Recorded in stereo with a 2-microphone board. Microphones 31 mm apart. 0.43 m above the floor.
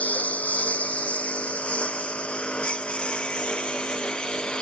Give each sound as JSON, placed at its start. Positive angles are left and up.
{"t": 0.0, "sound": "a lawn mower", "side_deg": 60}